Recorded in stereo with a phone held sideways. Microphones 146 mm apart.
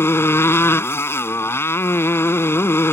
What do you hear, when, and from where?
0.0 s a motorcycle: 15° left (ahead or behind)